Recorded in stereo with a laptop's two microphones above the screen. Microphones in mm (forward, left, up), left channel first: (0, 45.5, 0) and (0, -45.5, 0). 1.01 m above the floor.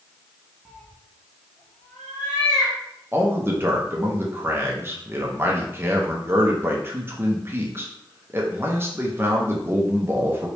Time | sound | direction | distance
0.7 | a cat meowing | centre (ahead or behind) | 0.6 m
3.1 | a man speaking | 30° right (ahead or behind) | 0.5 m